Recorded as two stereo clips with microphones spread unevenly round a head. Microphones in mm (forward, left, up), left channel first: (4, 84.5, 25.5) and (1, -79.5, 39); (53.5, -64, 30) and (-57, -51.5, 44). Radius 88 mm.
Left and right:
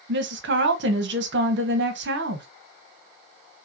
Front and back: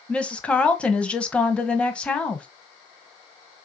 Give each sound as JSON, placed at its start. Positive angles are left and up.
{"t": 0.1, "sound": "a woman speaking", "azimuth_deg": -85, "distance_m": 1.4}